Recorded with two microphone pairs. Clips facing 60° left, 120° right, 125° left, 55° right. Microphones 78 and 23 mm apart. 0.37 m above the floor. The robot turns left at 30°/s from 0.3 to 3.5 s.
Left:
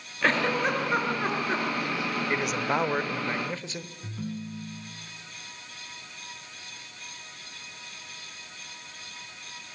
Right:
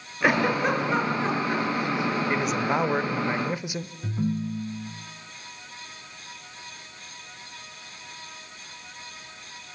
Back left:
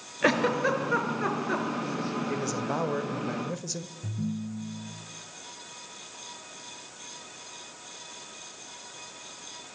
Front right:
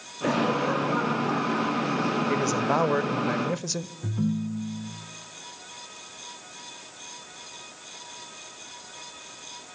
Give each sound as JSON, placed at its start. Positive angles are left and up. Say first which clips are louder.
{"t": 0.2, "sound": "a giggle", "louder": "right 3 dB, even", "azimuth_deg": 160, "distance_m": 5.5}
{"t": 2.3, "sound": "a man speaking", "louder": "right 2 dB, front right 6 dB", "azimuth_deg": -25, "distance_m": 1.1}
{"t": 4.0, "sound": "a ringtone", "louder": "right 9 dB, front right 6 dB", "azimuth_deg": -55, "distance_m": 2.5}